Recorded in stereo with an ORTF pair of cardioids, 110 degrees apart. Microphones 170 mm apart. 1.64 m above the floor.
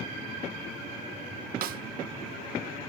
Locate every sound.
1.6 s a snare drum: 65° right, 1.4 m